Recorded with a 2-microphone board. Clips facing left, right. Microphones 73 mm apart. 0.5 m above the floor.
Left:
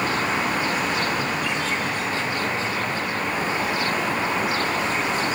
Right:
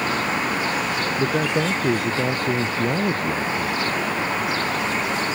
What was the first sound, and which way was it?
A man speaking, 85° right.